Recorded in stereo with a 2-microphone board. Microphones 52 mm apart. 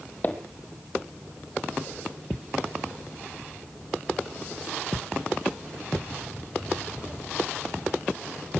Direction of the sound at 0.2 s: 40° left (ahead or behind).